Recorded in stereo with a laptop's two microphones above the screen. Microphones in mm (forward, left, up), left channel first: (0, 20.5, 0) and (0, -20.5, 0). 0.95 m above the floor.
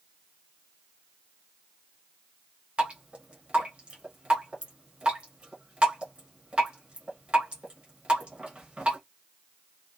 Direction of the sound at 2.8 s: 25° right (ahead or behind).